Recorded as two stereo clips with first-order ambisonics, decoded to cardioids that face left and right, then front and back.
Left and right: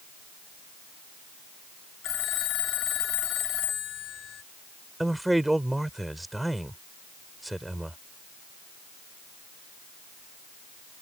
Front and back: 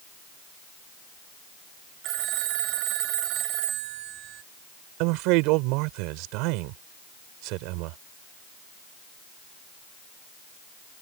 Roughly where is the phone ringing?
Behind left.